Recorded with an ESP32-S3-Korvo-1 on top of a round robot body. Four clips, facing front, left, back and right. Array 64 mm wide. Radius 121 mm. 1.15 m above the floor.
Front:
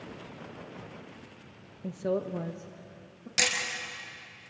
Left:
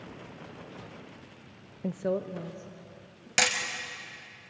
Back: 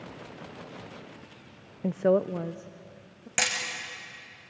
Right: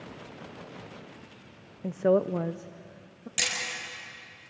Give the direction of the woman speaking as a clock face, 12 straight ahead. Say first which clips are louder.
Right 7 dB, back 7 dB; 7 o'clock.